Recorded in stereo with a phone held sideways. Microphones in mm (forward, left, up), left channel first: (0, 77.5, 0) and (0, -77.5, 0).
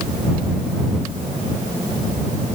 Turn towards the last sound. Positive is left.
No sound to turn to.